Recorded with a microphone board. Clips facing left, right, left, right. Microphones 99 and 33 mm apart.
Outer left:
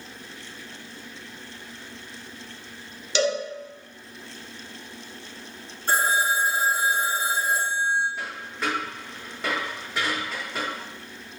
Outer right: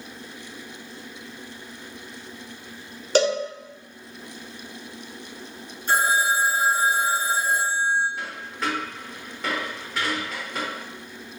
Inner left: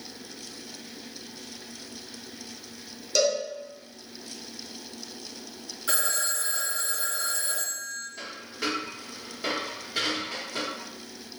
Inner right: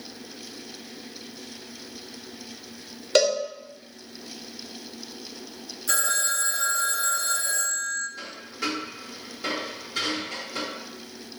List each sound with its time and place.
3.1 s a cowbell: 40° right (ahead or behind), 0.6 m
5.9 s a phone ringing: 35° left (ahead or behind), 1.0 m
8.2 s a dropped coin: centre (ahead or behind), 1.4 m